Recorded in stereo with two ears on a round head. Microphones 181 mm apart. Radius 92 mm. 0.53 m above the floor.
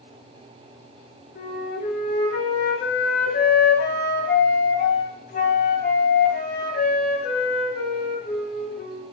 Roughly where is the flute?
Left.